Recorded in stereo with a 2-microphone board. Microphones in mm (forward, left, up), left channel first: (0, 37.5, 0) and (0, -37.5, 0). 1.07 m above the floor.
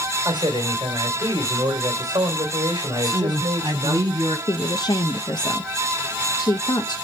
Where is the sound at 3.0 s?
60° right (ahead or behind), 7 m.